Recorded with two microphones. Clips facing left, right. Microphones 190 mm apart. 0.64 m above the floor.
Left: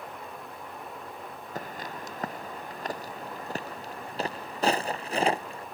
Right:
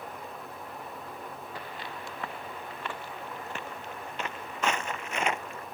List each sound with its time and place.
1.6 s footsteps: 40° left (ahead or behind); by 5.6 s 30° left (ahead or behind)